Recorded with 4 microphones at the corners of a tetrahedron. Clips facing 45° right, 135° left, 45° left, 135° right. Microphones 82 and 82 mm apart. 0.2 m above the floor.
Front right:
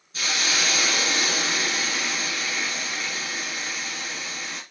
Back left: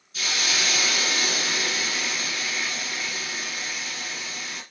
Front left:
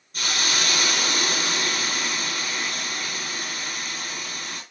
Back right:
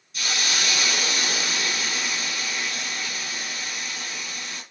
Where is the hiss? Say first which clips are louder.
Front right 2 dB, front left 1 dB; 5° left, 1.7 m.